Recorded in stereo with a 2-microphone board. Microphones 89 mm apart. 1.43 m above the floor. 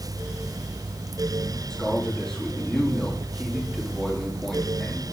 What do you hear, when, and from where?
1.7 s a man speaking: 5° left (ahead or behind), 3 m